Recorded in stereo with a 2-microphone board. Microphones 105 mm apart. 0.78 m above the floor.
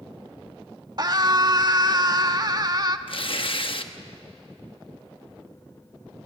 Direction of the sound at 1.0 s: 40° right (ahead or behind).